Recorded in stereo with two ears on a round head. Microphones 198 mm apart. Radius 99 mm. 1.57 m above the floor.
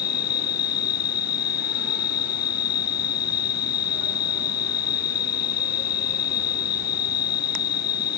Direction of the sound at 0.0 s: 45° left (ahead or behind).